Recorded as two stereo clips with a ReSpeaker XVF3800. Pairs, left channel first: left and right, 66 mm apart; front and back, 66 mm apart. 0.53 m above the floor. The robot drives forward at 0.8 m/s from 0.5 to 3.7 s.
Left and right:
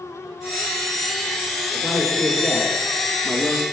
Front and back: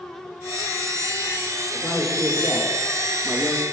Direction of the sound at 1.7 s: 30° left.